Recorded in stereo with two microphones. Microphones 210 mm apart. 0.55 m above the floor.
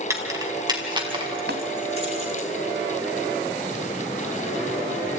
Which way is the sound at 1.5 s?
55° right (ahead or behind).